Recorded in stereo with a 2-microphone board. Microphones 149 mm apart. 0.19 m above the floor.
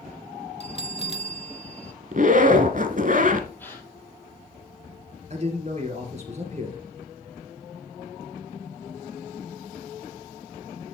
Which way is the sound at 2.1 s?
60° right (ahead or behind).